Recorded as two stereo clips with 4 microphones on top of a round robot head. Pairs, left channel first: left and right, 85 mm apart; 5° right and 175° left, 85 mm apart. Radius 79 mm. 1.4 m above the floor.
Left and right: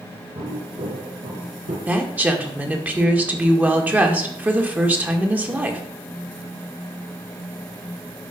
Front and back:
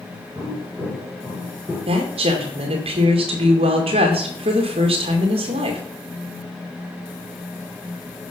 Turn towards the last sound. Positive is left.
turn(degrees=-160)